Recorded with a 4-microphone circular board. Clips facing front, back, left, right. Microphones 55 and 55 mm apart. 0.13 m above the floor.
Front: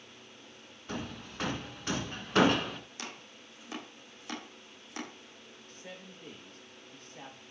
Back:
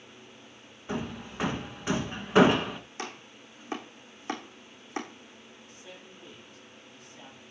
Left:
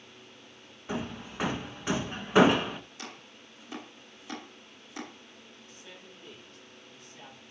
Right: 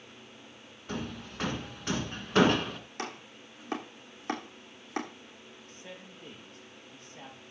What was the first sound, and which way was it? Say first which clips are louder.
Hammering: back 5 dB, left 2 dB; 140° left.